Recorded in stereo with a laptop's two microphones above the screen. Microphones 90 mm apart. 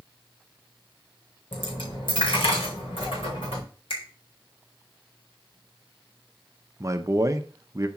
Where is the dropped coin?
75° left (ahead or behind), 4.5 m.